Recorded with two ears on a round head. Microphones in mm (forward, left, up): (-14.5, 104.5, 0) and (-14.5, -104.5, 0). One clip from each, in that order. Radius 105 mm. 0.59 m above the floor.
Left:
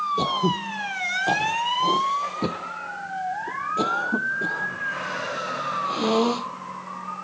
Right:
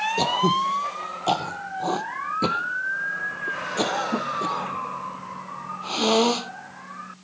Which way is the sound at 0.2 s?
30° right (ahead or behind).